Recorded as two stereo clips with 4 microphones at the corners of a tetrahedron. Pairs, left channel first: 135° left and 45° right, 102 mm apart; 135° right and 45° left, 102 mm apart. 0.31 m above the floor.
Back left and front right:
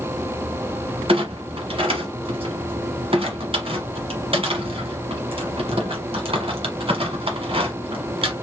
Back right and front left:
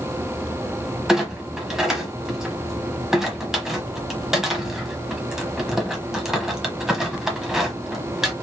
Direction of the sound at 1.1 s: 40° right.